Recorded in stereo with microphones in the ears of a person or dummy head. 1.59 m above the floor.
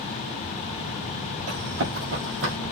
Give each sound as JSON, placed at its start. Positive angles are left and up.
{"t": 1.5, "sound": "running footsteps", "side_deg": -60, "distance_m": 4.0}